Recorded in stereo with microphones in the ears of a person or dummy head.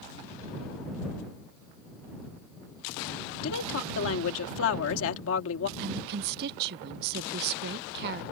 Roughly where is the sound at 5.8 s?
Right.